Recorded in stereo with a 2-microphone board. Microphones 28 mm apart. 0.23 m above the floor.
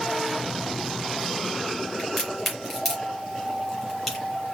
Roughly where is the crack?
Centre.